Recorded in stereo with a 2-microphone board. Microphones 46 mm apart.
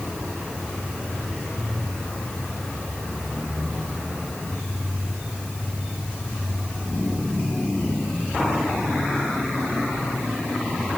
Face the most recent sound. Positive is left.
No sound to turn to.